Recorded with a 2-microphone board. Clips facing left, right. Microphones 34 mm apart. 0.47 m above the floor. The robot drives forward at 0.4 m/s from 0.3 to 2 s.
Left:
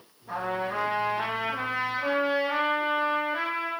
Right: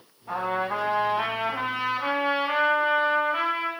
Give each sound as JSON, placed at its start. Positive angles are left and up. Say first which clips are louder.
{"t": 0.3, "sound": "a trumpet", "louder": "right 3 dB", "side_deg": -45, "distance_m": 1.3}